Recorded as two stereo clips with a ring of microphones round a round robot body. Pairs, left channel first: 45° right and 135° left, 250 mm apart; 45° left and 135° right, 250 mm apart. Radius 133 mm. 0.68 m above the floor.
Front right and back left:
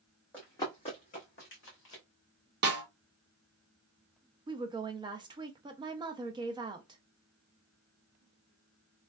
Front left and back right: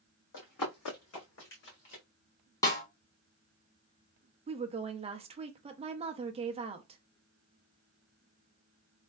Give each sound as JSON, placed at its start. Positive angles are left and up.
{"t": 0.3, "sound": "running footsteps", "azimuth_deg": 40, "distance_m": 1.7}
{"t": 2.6, "sound": "a snare drum", "azimuth_deg": 115, "distance_m": 1.1}
{"t": 4.5, "sound": "a woman speaking", "azimuth_deg": -170, "distance_m": 0.5}